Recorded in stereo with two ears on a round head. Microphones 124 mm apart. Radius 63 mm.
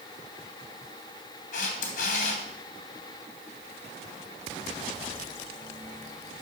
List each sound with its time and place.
1.5 s a camera shutter: 65° left (ahead or behind), 3 m